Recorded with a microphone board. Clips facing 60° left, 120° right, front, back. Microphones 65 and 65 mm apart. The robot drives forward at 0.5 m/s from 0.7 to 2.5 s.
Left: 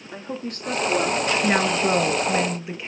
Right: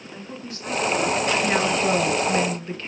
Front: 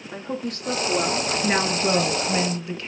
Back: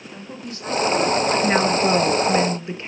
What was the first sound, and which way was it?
A woman speaking, 25° left.